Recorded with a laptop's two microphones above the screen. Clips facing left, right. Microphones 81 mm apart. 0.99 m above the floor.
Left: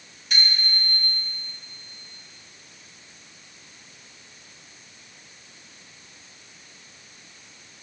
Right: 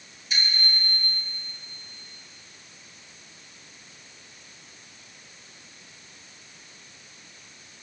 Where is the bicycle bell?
65° left (ahead or behind), 3 m.